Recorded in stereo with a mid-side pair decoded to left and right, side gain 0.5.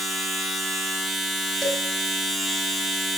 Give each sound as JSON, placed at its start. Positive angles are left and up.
{"t": 0.0, "sound": "a machine running", "azimuth_deg": 20, "distance_m": 2.5}
{"t": 1.6, "sound": "dishes clattering", "azimuth_deg": 5, "distance_m": 4.5}